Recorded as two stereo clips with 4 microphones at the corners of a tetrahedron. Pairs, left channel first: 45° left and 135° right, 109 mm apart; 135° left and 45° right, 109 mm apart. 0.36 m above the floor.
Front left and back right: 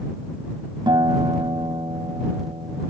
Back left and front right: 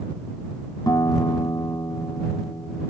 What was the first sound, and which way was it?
A guitar, 175° right.